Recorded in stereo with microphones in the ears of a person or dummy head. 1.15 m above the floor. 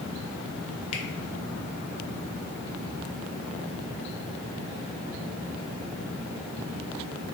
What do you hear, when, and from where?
0.9 s a finger snap: 35° left (ahead or behind), 0.9 m